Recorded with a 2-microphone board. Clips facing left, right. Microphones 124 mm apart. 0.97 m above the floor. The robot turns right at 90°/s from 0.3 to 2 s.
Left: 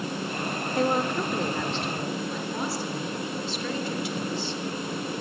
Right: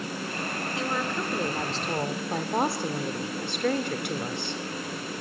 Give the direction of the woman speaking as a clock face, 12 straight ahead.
8 o'clock.